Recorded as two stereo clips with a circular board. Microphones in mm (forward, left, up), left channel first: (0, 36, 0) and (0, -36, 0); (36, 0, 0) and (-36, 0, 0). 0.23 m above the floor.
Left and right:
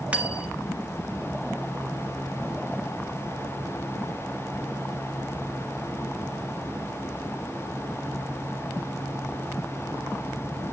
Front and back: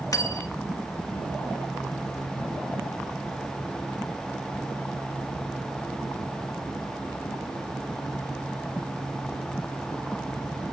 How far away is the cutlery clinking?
About 1.0 m.